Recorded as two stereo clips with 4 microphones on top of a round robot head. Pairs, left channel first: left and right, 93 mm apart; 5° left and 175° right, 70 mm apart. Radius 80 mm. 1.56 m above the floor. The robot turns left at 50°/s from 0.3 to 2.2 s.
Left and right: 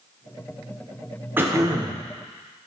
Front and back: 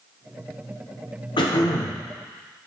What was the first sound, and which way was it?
Throat clearing, 20° right.